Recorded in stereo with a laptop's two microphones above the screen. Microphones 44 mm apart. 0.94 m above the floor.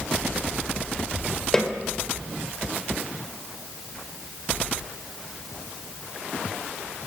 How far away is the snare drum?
About 4 m.